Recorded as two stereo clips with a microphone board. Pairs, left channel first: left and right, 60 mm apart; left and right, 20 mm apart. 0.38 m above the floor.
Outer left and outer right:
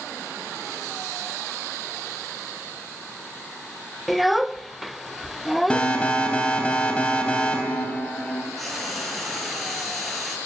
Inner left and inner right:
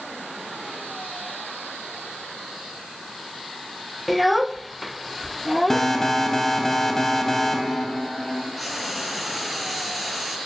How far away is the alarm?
About 3.5 m.